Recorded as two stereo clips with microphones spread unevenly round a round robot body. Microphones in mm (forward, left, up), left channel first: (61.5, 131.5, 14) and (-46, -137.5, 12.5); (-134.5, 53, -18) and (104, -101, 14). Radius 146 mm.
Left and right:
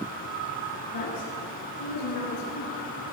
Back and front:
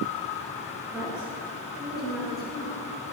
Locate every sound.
0.9 s a woman speaking: 55° left, 7.5 m; by 2.8 s 60° left, 9.5 m